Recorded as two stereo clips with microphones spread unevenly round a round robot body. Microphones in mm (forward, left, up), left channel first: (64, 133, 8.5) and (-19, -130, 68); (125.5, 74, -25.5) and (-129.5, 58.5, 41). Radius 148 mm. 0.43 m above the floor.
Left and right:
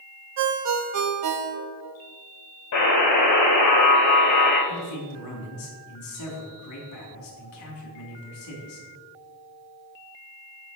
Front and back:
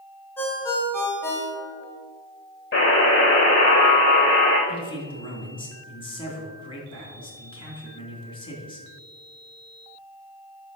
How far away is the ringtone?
About 1.1 m.